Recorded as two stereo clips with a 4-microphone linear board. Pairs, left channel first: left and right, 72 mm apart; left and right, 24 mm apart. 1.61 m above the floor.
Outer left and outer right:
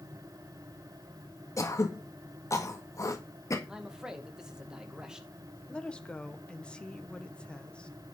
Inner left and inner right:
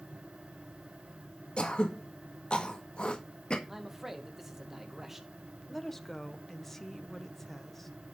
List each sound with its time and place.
1.6 s throat clearing: 45° left (ahead or behind), 1.7 m
3.7 s a man speaking: 10° right (ahead or behind), 2 m
5.7 s a woman speaking: 15° left (ahead or behind), 1.2 m